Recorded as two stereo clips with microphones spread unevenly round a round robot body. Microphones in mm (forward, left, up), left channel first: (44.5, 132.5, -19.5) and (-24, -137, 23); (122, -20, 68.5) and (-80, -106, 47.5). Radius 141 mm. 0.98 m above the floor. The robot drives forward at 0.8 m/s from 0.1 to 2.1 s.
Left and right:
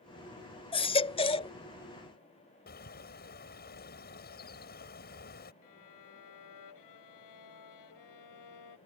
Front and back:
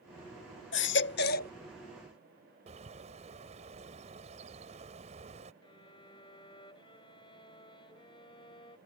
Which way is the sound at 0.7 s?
Straight ahead.